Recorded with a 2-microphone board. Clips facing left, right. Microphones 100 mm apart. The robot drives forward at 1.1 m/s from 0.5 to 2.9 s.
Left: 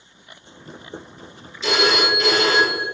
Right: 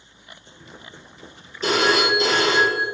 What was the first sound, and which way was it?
A phone ringing, 45° right (ahead or behind).